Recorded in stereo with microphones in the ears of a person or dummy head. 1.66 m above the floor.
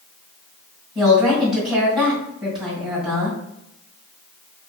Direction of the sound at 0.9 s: 5° right (ahead or behind).